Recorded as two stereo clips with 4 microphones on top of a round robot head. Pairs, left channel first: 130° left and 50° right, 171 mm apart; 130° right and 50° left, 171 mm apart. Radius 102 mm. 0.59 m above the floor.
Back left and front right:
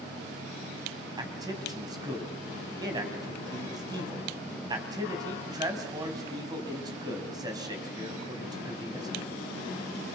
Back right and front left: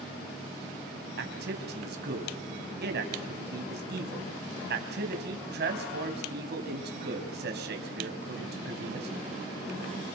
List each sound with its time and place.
1.2 s a man speaking: 20° left, 3.5 m